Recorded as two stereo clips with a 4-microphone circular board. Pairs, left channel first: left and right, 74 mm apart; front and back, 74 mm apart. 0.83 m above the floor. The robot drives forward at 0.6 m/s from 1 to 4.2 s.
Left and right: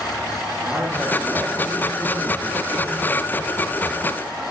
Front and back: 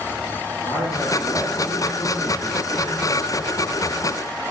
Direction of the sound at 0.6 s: 20° right.